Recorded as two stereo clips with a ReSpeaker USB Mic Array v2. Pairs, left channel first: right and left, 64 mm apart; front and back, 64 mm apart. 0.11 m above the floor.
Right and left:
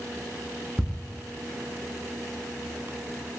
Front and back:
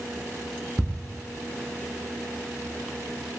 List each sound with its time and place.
0.8 s ticking: 20° right, 0.6 m